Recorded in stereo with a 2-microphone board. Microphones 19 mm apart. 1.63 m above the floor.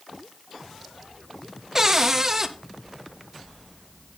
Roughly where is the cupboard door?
Right.